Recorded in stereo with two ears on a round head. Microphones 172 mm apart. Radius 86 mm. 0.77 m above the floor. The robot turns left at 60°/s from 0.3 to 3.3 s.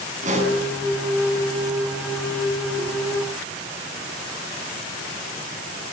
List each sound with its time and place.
0.2 s a pop: 45° right (ahead or behind), 7.5 m; by 0.6 s 25° right (ahead or behind), 7.5 m